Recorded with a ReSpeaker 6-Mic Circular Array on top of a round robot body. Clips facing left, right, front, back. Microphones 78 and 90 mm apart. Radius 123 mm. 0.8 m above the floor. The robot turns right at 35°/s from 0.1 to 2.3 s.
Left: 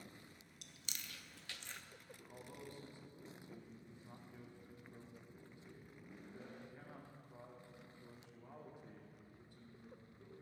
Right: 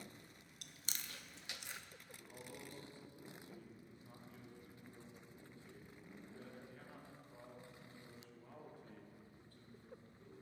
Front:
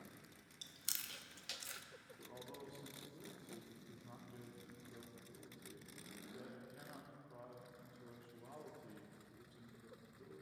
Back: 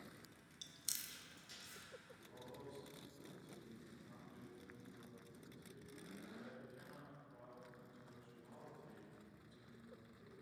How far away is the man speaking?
About 3 m.